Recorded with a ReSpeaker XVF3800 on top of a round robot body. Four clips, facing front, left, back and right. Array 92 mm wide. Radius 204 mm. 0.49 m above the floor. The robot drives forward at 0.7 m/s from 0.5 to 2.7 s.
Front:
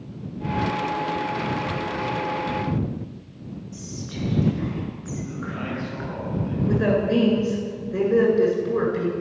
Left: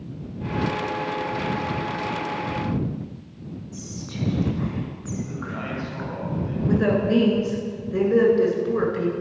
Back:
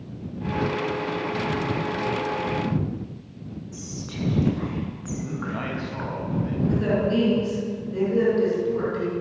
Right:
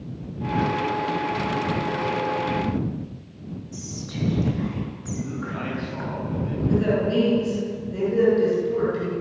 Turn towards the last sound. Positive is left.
turn(degrees=75)